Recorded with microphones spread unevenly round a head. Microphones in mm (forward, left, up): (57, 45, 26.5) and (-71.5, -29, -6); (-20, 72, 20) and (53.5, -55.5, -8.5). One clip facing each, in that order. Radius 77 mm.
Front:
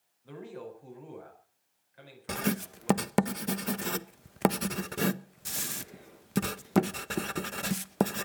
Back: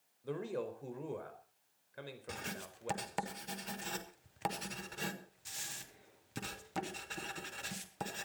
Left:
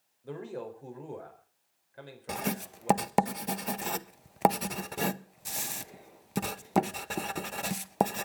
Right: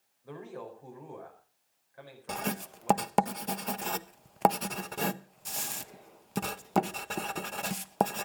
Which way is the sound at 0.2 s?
Straight behind.